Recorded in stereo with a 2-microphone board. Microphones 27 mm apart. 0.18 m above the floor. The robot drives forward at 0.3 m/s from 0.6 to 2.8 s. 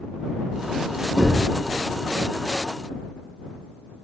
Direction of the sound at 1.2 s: 10° right (ahead or behind).